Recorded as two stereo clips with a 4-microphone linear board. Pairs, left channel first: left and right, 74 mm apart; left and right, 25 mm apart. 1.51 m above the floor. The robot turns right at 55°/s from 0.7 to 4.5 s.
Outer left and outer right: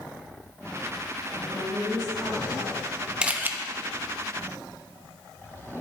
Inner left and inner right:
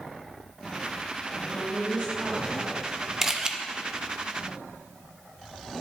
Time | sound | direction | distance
1.5 | a woman speaking | 135° right | 3.5 m
3.2 | a camera shutter | 15° right (ahead or behind) | 0.7 m